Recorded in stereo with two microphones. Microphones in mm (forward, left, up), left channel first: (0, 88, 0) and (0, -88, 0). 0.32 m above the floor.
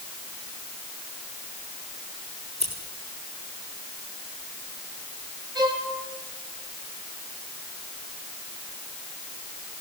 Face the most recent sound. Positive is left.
turn(degrees=-25)  # may be behind; listen again after turning